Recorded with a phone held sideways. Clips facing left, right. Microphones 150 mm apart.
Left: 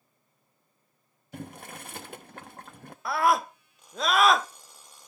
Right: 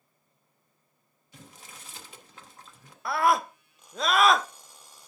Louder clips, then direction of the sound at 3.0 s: Even; centre (ahead or behind).